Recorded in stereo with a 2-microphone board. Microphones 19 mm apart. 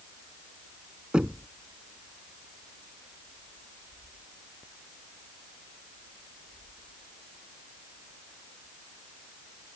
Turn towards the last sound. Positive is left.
turn(degrees=-70)  # may be behind; listen again after turning